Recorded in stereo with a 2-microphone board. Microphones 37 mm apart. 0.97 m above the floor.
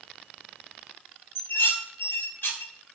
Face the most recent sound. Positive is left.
turn(degrees=80)